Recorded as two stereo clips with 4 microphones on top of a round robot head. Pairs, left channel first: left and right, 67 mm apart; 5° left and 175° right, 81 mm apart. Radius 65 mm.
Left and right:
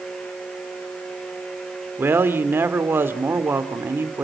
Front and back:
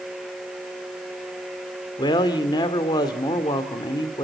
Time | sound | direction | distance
2.0 | a man speaking | 35° right | 1.9 m